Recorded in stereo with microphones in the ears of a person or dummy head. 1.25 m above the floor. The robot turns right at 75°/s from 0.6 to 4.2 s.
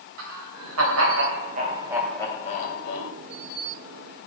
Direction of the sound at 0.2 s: 110° right.